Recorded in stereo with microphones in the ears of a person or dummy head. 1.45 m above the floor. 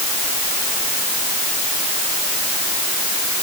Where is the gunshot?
I don't hear a gunshot.